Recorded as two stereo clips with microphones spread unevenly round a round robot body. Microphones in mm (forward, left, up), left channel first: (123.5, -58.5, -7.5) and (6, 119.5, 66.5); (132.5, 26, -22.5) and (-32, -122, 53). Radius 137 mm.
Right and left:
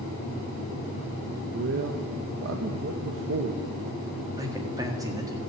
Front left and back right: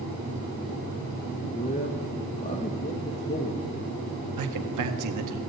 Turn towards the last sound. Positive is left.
turn(degrees=-155)